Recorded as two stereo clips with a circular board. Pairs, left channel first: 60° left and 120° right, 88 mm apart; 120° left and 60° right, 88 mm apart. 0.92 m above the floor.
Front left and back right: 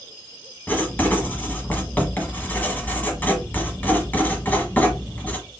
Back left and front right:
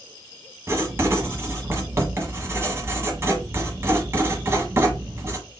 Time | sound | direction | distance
0.7 | writing | 5° right | 1.2 m